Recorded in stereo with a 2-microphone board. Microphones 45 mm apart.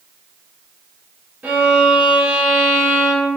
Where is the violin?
40° right (ahead or behind), 1.3 m.